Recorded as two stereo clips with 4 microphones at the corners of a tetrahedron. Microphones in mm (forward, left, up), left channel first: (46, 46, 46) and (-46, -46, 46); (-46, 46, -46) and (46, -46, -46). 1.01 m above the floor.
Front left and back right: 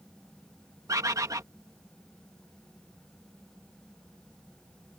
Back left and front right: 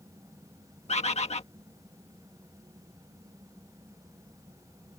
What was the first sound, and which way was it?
A bird, 165° left.